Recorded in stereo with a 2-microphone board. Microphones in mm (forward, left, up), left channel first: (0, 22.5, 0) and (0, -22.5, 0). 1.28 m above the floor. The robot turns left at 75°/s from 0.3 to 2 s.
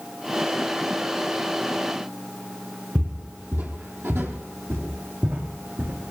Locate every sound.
3.0 s footsteps: 45° right (ahead or behind), 1.7 m; by 6.1 s 65° right (ahead or behind), 3.5 m